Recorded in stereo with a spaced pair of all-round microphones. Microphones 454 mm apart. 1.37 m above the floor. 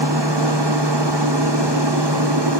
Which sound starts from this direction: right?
A machine running, at 0.0 s.